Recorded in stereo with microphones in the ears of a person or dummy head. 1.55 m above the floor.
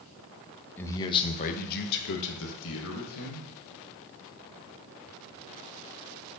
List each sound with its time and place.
0.8 s a man speaking: 10° left (ahead or behind), 0.7 m; by 3.4 s 85° left, 1.4 m